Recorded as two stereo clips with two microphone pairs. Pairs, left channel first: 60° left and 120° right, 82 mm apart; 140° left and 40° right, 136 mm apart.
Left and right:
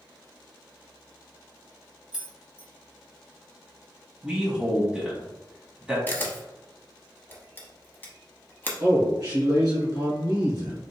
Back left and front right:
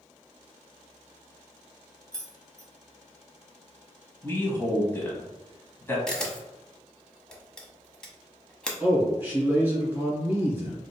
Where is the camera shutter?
60° left, 0.8 m.